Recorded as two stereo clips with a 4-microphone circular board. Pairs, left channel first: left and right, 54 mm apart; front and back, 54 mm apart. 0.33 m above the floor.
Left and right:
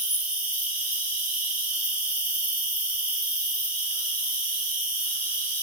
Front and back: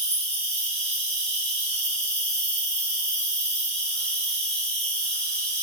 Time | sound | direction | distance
0.0 | an insect | 55° right | 1.5 m